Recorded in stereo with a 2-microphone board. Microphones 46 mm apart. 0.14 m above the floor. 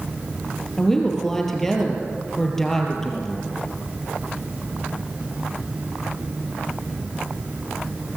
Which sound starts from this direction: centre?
A woman speaking, at 0.8 s.